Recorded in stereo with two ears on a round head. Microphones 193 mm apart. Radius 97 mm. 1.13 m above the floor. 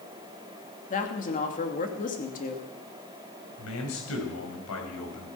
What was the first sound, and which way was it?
A woman speaking, 40° left (ahead or behind).